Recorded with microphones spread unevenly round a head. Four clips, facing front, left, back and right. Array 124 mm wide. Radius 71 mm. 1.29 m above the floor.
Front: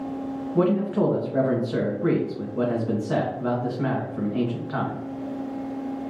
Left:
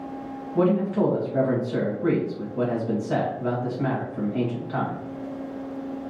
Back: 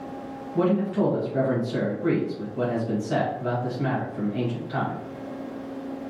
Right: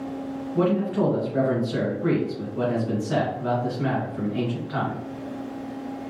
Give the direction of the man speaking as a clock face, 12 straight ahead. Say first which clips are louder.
Left 1 dB, front 1 dB; 12 o'clock.